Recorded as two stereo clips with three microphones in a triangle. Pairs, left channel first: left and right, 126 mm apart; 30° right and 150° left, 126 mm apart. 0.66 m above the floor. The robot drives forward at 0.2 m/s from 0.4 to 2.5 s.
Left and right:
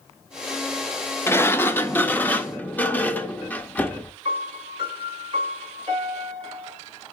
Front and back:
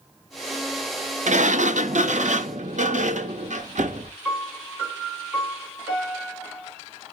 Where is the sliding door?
160° left, 0.5 m; by 4.1 s 165° left, 0.7 m.